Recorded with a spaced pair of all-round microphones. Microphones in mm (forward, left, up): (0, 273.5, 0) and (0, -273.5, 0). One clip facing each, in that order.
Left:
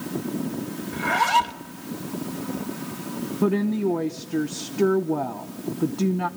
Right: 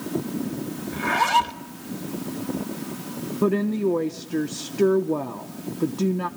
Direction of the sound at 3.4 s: 5° left (ahead or behind).